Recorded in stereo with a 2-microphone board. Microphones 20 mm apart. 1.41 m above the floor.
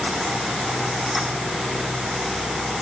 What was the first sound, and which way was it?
Only background noise.